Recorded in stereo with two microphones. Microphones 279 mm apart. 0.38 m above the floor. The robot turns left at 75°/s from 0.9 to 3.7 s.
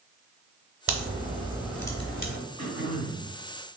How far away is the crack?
About 0.9 m.